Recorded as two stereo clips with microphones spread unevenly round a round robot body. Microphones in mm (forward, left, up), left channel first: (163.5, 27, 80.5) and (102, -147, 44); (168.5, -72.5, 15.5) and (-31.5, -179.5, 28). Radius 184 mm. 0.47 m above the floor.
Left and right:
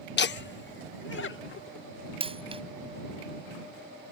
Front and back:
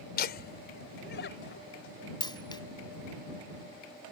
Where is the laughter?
65° left; by 1.9 s 75° left.